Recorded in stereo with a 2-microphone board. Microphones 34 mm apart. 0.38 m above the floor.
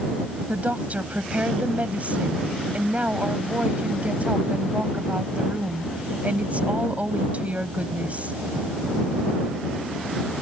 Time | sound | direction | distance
0.5 | a woman speaking | 45° right (ahead or behind) | ?